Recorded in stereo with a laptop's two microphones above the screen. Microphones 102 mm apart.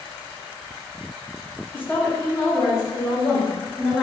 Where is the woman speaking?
15° left (ahead or behind), 0.7 m; by 4.0 s 30° left (ahead or behind), 1.4 m.